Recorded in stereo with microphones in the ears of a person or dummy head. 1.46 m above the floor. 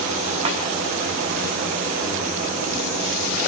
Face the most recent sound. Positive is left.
turn(degrees=-35)  # may be behind; listen again after turning